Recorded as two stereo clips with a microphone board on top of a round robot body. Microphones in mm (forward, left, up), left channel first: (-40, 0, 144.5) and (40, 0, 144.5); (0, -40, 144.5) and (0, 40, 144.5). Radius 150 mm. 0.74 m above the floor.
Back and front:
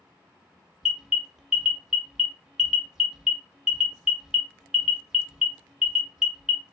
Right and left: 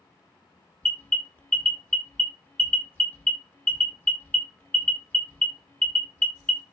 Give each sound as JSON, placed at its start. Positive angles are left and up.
{"t": 0.8, "sound": "an alarm", "azimuth_deg": -75, "distance_m": 1.3}